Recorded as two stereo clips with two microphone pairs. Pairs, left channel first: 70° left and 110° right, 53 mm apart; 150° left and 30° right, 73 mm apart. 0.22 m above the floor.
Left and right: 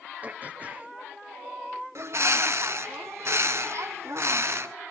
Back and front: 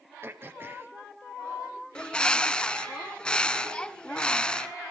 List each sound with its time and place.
0.2 s throat clearing: 65° right, 1.1 m
1.9 s a bird: 135° right, 0.9 m